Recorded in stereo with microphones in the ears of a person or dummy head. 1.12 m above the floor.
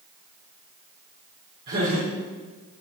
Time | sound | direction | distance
1.7 | laughter | 50° right (ahead or behind) | 3.5 m